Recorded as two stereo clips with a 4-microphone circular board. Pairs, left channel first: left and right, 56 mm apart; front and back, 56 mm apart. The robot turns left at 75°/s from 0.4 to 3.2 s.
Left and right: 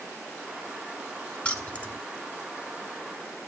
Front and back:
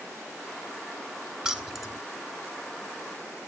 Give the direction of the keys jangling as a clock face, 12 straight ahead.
8 o'clock.